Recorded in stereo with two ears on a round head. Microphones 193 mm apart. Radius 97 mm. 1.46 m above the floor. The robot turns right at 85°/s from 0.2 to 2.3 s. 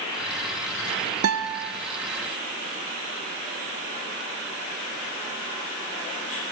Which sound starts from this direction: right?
A guitar, at 1.2 s.